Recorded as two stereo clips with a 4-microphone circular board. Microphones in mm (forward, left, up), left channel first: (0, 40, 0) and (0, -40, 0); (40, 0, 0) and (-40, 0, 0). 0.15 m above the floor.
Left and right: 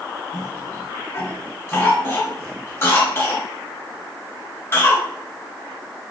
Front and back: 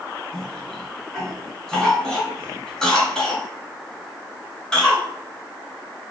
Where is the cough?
75° left, 1.4 m.